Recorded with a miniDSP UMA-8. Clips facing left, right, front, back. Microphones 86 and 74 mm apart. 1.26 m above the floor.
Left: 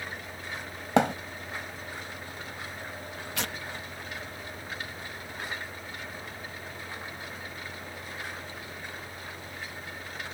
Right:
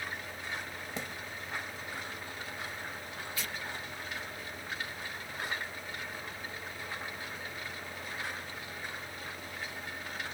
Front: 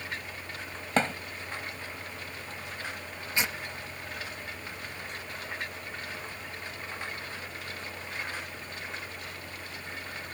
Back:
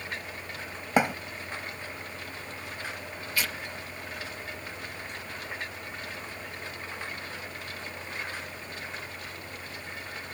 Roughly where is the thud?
Left.